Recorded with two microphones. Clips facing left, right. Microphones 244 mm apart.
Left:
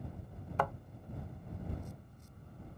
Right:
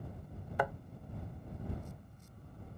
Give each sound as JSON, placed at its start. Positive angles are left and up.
{"t": 0.6, "sound": "a thud", "side_deg": -15}